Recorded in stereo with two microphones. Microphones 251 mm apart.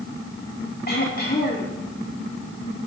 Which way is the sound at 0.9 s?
40° left (ahead or behind).